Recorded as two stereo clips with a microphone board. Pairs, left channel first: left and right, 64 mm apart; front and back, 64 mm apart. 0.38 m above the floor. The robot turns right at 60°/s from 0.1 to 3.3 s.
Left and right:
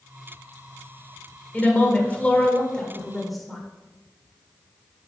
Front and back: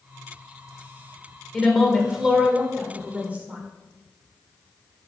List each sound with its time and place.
1.5 s a woman speaking: 75° left, 1.3 m; by 3.6 s straight behind, 1.3 m